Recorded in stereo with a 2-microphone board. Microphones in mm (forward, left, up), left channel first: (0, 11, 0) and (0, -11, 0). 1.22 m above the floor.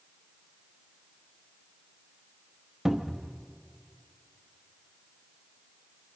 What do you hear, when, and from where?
2.9 s a cupboard door: 25° right (ahead or behind), 0.9 m